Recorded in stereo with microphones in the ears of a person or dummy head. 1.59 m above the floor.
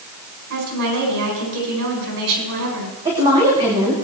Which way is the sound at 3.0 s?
20° right (ahead or behind).